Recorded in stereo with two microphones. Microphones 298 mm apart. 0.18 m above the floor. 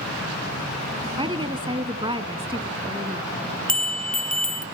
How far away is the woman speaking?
About 1.4 m.